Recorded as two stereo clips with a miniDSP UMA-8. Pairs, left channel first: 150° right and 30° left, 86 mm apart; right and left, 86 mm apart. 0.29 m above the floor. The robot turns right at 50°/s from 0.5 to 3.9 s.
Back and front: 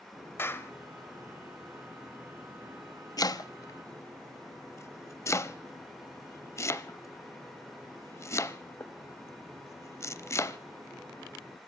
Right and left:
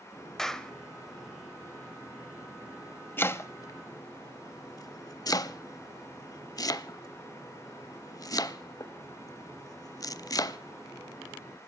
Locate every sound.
0.4 s a clap: 170° right, 0.8 m; by 0.7 s 160° right, 0.8 m
3.2 s chopping: 150° right, 0.5 m; by 10.6 s 110° right, 0.5 m